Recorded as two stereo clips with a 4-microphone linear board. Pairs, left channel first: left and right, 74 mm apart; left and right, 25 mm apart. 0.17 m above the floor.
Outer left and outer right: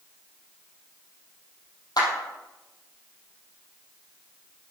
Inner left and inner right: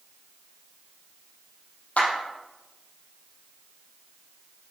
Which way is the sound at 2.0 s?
60° left (ahead or behind).